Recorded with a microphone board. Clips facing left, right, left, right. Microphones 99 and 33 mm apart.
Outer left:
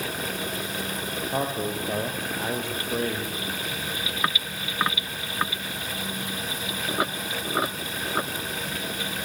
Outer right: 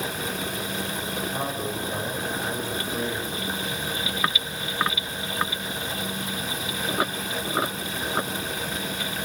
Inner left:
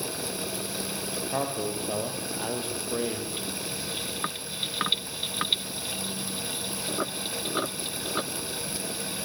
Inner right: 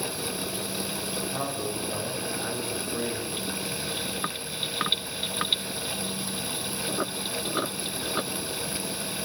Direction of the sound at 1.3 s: 70° left (ahead or behind).